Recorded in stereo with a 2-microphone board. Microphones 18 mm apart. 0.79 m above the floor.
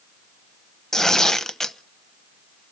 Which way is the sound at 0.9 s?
30° left (ahead or behind).